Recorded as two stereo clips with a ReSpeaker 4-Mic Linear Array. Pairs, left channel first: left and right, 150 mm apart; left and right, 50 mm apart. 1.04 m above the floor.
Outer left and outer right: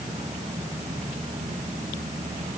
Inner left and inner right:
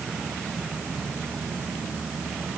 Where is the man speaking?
I don't hear a man speaking.